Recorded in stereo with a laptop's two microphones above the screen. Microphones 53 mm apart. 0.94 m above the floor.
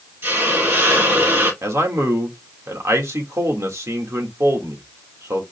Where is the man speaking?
65° right (ahead or behind), 1.4 m.